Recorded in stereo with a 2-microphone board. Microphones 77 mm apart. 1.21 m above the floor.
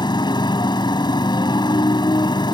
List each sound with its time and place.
0.0 s a motorcycle: 75° left (ahead or behind)